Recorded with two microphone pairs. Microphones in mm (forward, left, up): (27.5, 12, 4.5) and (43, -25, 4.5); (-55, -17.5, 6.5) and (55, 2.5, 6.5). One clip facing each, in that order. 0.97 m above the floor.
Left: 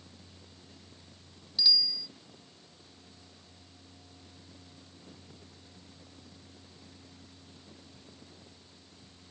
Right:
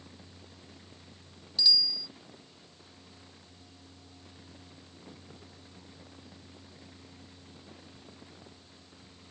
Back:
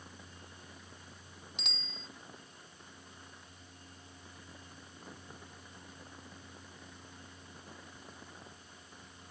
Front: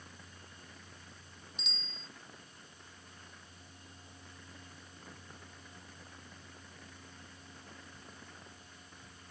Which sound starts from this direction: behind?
A bicycle bell, at 1.6 s.